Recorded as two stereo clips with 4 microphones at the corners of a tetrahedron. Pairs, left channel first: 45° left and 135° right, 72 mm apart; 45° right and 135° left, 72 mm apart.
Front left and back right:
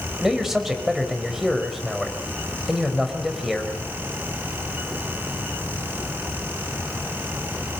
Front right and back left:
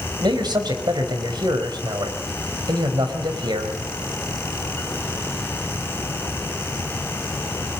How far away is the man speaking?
About 4.5 m.